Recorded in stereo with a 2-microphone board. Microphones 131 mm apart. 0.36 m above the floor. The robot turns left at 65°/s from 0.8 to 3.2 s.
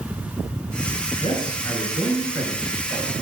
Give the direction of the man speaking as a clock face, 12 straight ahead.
10 o'clock.